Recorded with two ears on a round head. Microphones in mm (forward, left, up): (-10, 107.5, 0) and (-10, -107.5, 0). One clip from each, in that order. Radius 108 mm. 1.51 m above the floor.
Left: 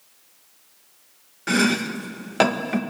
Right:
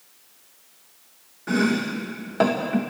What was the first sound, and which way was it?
Chopping, 60° left (ahead or behind).